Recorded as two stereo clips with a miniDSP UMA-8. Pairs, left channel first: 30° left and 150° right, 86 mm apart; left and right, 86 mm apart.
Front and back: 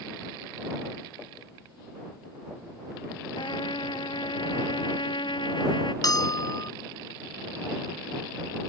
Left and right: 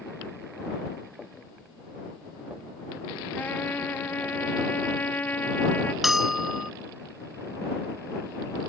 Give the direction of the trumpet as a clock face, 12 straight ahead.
11 o'clock.